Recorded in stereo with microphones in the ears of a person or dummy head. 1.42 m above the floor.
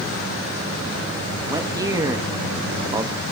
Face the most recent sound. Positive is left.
turn(degrees=-20)  # may be behind; listen again after turning